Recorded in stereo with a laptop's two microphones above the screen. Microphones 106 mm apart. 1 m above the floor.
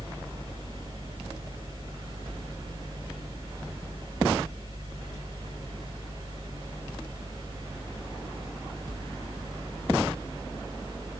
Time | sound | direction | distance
0.0 | a fan | 50° right (ahead or behind) | 2 m